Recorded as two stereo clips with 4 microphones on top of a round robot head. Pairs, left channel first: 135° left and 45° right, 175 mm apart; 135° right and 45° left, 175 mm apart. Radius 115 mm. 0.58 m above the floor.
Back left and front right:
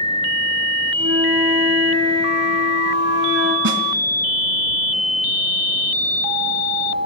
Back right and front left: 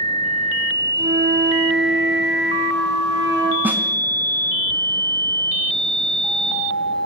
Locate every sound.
1.0 s a flute: 20° right, 5.5 m
3.6 s a snare drum: 35° right, 3 m